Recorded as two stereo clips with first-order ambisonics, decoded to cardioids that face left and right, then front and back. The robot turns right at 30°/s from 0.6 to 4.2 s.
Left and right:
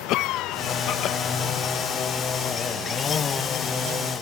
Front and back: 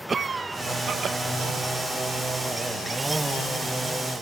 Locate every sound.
0.1 s a cough: 115° left; by 1.2 s 130° left